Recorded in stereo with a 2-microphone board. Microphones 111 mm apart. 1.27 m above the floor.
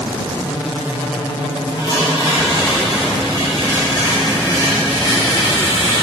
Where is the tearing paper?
40° left (ahead or behind), 3 m.